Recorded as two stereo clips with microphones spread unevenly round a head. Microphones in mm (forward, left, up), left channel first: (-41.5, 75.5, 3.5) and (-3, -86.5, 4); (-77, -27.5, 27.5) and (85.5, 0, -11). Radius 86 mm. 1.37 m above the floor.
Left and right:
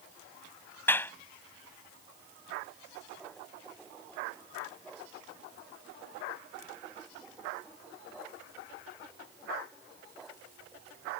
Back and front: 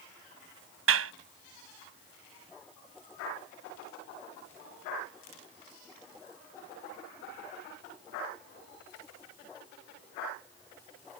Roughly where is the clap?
Ahead left.